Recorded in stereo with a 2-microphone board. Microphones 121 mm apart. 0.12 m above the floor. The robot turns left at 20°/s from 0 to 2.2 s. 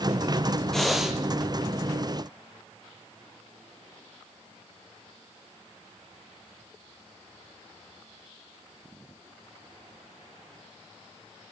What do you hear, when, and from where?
0.7 s breathing: centre (ahead or behind), 1.6 m; by 1.2 s 5° right (ahead or behind), 1.6 m